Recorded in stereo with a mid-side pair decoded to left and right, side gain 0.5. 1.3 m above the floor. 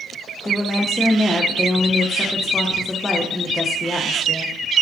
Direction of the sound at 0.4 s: 15° left.